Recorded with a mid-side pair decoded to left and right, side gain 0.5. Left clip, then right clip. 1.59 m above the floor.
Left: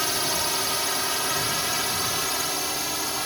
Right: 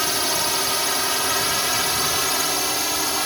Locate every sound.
0.0 s a drone: 20° right; by 3.3 s 35° right